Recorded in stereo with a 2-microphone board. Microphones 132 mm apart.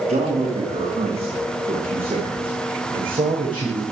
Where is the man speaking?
55° right (ahead or behind), 9.5 m; by 3.9 s 40° right (ahead or behind), 9.5 m.